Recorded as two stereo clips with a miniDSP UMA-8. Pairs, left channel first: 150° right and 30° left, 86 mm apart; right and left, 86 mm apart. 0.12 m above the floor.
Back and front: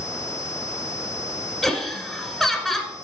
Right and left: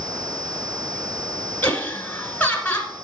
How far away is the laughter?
About 1.1 m.